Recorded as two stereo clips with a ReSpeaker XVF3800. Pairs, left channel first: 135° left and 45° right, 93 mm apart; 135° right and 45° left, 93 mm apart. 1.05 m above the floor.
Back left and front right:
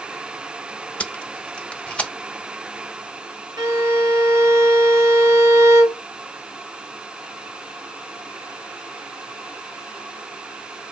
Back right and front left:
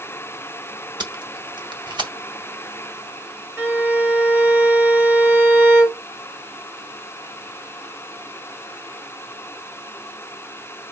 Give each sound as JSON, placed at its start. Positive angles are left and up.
{"t": 1.0, "sound": "tape being pulled", "azimuth_deg": 60, "distance_m": 1.0}
{"t": 3.6, "sound": "a violin", "azimuth_deg": -15, "distance_m": 1.2}